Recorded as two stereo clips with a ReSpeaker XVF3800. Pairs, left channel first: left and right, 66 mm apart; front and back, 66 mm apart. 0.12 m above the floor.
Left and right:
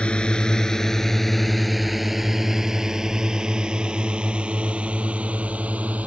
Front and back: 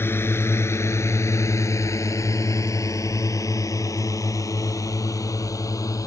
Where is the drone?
25° left; by 6.1 s 25° right.